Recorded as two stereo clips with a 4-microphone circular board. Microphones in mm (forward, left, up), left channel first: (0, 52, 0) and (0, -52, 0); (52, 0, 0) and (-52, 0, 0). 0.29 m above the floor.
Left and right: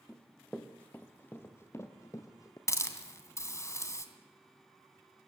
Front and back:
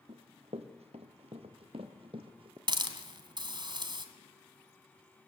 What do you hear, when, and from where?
0.1 s running footsteps: 175° left, 3 m; by 2.6 s 145° left, 3 m
2.7 s a hiss: 150° left, 2.5 m